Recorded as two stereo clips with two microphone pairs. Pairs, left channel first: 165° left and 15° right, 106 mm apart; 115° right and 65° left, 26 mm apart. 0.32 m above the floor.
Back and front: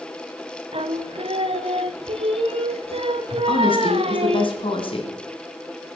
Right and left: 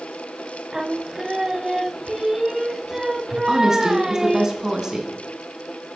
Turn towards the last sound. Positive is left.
turn(degrees=135)